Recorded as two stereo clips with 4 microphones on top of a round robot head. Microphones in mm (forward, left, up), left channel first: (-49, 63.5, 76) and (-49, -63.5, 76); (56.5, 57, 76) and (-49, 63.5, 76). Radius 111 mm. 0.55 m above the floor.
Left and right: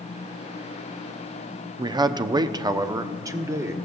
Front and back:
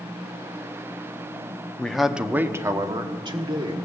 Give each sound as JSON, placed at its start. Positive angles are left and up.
{"t": 1.8, "sound": "a man speaking", "azimuth_deg": -75, "distance_m": 0.8}